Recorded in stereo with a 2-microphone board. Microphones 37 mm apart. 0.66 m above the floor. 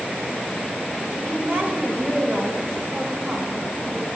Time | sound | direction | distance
1.2 | a woman speaking | 65° right (ahead or behind) | 3 m